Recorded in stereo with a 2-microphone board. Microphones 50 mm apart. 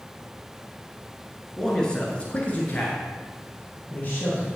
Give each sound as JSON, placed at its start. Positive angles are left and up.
{"t": 1.6, "sound": "a man speaking", "side_deg": 10, "distance_m": 1.4}